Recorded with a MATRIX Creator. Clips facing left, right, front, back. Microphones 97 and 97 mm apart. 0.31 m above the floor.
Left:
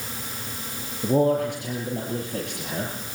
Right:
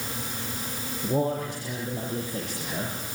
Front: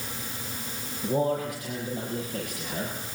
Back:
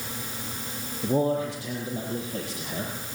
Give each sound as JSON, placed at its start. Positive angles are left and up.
{"t": 1.0, "sound": "a man speaking", "azimuth_deg": 120, "distance_m": 7.0}